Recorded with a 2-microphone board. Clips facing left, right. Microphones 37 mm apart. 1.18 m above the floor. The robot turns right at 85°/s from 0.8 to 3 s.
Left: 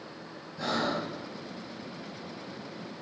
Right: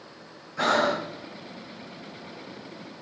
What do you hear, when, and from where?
0.6 s breathing: 70° right (ahead or behind), 0.8 m; by 1.1 s 85° right, 0.8 m